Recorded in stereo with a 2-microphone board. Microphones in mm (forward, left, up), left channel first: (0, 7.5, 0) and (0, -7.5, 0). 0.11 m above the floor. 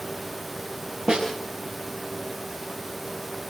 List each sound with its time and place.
1.1 s a snare drum: 75° right (ahead or behind), 6.5 m